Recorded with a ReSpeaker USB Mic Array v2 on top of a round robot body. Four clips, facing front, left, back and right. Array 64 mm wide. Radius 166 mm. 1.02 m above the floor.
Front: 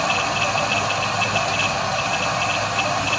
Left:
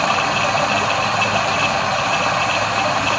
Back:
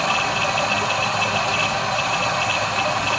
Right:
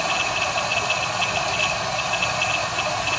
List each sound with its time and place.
0.0 s running water: 95° left, 1.5 m